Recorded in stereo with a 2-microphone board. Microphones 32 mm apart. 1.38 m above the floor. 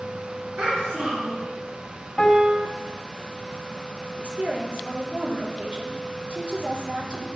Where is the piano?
10° left (ahead or behind), 1.1 m.